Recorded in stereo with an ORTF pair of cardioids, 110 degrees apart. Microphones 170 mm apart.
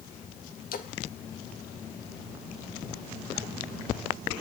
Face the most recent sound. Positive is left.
turn(degrees=55)